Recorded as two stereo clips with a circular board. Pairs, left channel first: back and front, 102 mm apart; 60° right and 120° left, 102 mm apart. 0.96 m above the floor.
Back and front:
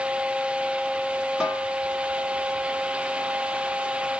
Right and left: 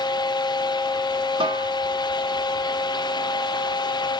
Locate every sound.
1.4 s a snare drum: 85° left, 3 m